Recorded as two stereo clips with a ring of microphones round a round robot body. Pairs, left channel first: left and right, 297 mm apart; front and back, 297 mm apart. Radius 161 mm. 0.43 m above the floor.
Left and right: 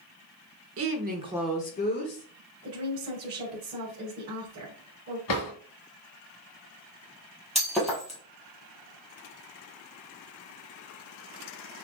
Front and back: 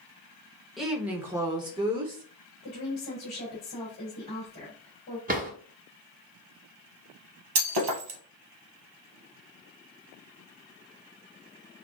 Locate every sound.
0.8 s a woman speaking: 90° right, 1.0 m; by 2.2 s 110° left, 1.0 m
2.6 s a woman speaking: 60° right, 2.5 m
5.3 s a drawer: 120° left, 2.0 m
7.5 s breaking glass: straight behind, 1.3 m